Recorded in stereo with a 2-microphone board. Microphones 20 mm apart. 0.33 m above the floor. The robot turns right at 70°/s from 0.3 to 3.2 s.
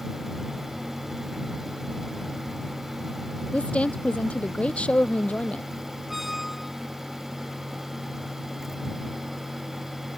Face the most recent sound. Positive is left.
turn(degrees=-10)  # may be behind; listen again after turning